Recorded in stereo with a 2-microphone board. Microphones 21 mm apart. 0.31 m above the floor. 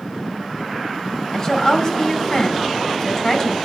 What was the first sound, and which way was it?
A woman speaking, 30° left (ahead or behind).